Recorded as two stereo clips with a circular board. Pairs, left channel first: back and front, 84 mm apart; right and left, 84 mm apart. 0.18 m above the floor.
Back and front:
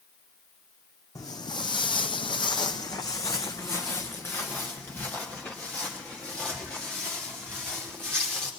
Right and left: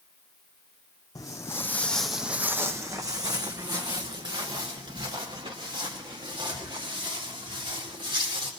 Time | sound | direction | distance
1.1 | footsteps | 135° right | 0.8 m